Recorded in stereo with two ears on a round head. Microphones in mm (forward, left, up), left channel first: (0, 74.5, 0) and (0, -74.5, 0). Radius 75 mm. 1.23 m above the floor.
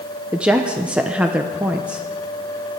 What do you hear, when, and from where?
0.3 s a woman speaking: 5° right (ahead or behind), 0.7 m